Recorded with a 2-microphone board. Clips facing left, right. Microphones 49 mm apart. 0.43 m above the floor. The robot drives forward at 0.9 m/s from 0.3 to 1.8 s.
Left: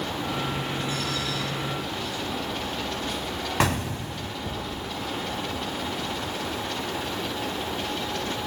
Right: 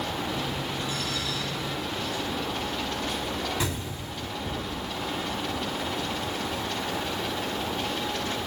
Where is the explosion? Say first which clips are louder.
Left 6 dB; 60° left (ahead or behind), 0.6 m.